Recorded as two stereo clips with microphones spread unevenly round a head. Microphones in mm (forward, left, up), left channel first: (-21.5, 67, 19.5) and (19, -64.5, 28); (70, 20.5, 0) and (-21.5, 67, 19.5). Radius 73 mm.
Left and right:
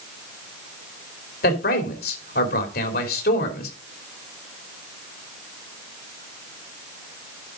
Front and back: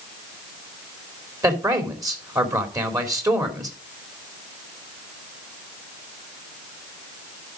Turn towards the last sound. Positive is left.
turn(degrees=95)